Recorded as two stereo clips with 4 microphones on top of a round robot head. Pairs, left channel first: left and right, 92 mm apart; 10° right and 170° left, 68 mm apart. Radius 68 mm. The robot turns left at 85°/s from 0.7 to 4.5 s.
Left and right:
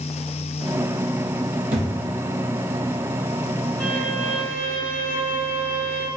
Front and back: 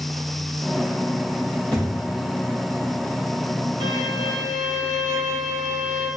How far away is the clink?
I don't hear a clink.